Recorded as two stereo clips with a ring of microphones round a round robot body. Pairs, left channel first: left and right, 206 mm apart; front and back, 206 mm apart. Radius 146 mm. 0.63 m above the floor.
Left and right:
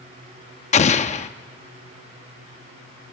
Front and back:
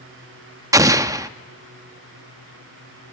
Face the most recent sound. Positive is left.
turn(degrees=115)